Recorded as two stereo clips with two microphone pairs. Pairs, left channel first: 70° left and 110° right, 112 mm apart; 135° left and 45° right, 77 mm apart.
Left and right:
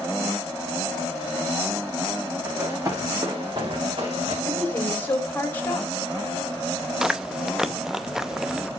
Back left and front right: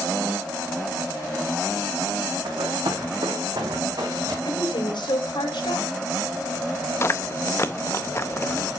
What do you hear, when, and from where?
2.5 s running footsteps: 45° right, 3.5 m; by 4.3 s 80° right, 4.5 m
4.5 s a woman speaking: 140° left, 3 m
7.0 s chewing: 165° left, 0.7 m